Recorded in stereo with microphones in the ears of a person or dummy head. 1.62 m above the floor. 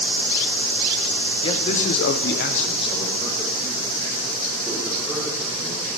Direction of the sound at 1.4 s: 30° left (ahead or behind).